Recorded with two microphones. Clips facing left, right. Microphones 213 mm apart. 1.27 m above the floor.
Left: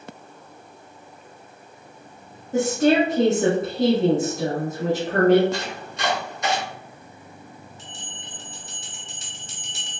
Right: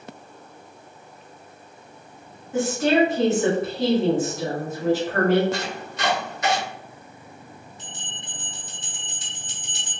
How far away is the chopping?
About 1.7 m.